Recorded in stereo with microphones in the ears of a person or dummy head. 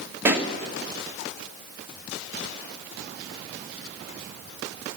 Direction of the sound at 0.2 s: 15° right (ahead or behind).